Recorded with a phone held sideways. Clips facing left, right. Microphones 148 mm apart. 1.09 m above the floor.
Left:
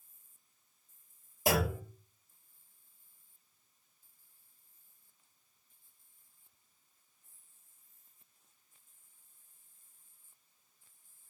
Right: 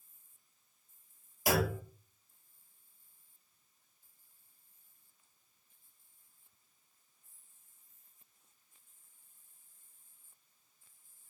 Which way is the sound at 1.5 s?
35° left (ahead or behind).